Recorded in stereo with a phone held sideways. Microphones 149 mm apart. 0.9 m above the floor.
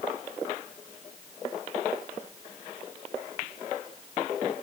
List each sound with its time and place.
Only background noise.